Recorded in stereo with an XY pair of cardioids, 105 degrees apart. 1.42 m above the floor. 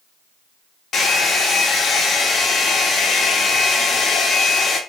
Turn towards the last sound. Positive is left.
turn(degrees=50)